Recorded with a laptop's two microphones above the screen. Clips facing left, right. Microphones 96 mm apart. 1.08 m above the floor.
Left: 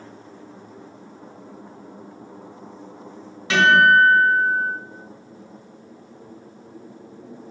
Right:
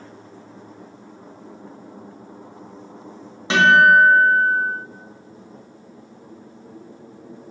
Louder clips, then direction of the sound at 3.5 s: Right 2 dB; 25° right (ahead or behind).